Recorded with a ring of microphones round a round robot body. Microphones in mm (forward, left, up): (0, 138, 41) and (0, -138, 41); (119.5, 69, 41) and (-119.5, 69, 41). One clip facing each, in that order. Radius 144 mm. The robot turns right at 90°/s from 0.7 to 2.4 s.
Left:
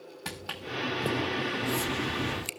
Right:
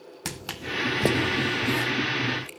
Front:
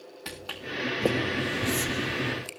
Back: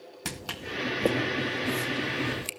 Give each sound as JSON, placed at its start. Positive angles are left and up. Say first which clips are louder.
{"t": 0.2, "sound": "footsteps", "louder": "right 4 dB, back 1 dB", "azimuth_deg": -135, "distance_m": 1.5}